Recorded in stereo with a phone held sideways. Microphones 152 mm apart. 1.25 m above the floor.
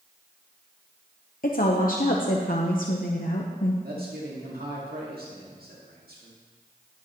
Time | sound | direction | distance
1.4 | a woman speaking | 65° left (ahead or behind) | 0.9 m
3.8 | a man speaking | 85° right | 2.0 m